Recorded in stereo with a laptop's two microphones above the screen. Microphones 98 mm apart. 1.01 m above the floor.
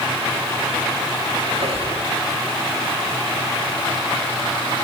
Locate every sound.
1.5 s a squeak: 80° right, 10 m